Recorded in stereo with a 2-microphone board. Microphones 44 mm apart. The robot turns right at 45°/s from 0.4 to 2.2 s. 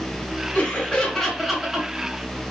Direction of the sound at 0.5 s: 145° left.